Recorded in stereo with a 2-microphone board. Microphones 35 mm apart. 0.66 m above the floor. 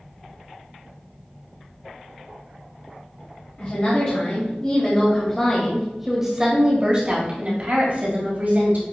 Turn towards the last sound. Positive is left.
turn(degrees=-60)  # may be behind; listen again after turning